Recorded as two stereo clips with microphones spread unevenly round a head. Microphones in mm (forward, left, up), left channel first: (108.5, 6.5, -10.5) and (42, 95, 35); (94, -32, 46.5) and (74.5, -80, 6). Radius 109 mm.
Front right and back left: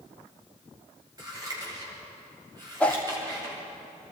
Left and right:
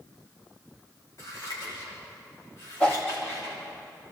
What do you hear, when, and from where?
1.2 s scissors: 75° left, 10 m
2.8 s a whoosh: 40° left, 1.9 m